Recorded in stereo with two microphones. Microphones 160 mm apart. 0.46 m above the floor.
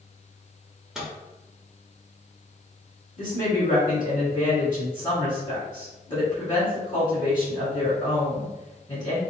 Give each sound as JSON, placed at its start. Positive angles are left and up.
{"t": 0.9, "sound": "a microwave", "side_deg": -5, "distance_m": 1.1}
{"t": 3.2, "sound": "a woman speaking", "side_deg": 30, "distance_m": 1.2}